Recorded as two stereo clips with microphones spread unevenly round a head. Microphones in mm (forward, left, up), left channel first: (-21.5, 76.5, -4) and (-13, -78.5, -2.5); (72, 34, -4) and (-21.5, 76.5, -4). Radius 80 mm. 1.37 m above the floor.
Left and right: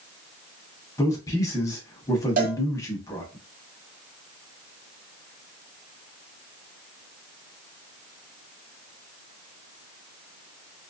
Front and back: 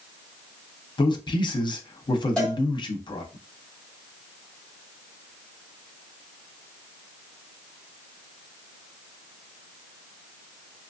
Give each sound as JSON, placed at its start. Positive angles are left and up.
{"t": 1.0, "sound": "a man speaking", "azimuth_deg": 20, "distance_m": 0.9}
{"t": 2.4, "sound": "a cowbell", "azimuth_deg": -105, "distance_m": 1.3}